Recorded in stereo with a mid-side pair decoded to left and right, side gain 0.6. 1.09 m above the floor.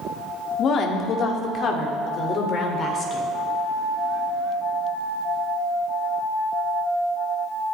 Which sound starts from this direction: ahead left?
A woman speaking, at 0.6 s.